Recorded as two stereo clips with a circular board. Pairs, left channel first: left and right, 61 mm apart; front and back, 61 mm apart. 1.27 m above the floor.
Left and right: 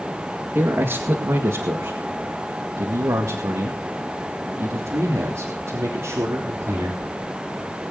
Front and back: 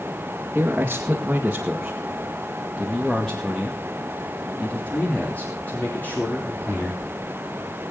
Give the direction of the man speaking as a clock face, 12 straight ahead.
4 o'clock.